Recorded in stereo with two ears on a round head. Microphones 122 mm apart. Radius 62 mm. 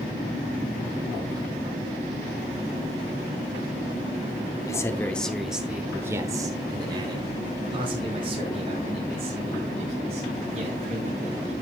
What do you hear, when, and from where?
4.7 s a man speaking: 25° left (ahead or behind), 0.8 m; by 11.5 s 50° right (ahead or behind), 3.5 m